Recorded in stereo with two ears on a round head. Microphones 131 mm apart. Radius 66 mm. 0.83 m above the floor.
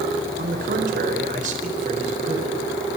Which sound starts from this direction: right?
A man speaking, at 0.4 s.